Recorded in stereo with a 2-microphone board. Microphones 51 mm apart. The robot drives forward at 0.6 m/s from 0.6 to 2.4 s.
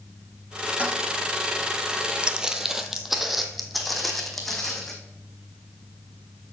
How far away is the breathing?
I don't hear breathing.